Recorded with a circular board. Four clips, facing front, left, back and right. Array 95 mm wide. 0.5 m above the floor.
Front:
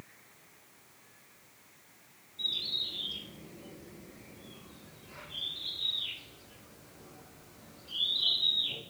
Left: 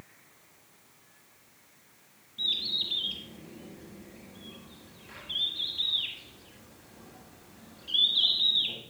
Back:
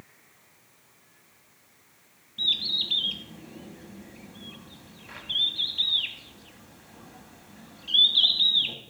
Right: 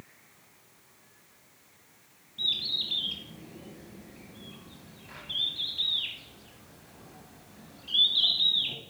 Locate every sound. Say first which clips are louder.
2.4 s a bird: even, back 7 dB; 175° right, 1.1 m